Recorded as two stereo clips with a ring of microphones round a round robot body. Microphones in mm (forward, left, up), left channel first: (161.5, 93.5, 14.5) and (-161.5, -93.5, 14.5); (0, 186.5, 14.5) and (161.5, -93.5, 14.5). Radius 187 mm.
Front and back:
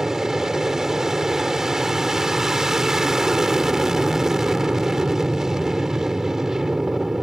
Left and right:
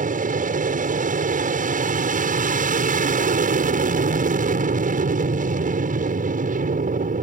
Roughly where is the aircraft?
Ahead right.